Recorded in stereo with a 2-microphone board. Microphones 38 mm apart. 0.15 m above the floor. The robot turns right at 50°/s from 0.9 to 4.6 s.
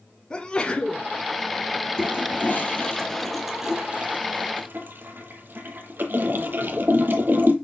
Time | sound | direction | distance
0.3 | a sneeze | 25° left (ahead or behind) | 1.1 m
2.0 | a toilet flushing | 70° left (ahead or behind) | 1.3 m